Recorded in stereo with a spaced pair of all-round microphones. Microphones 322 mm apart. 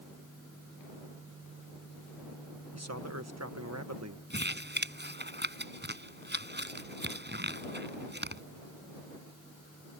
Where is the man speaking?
50° right (ahead or behind).